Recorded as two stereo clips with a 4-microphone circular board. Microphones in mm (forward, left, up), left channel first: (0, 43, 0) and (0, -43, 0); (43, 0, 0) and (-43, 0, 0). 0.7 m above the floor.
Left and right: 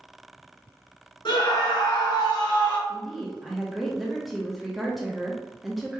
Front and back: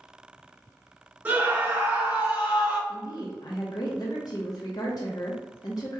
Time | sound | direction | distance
1.2 | a scream | 110° left | 1.5 m
2.9 | a woman speaking | straight ahead | 0.7 m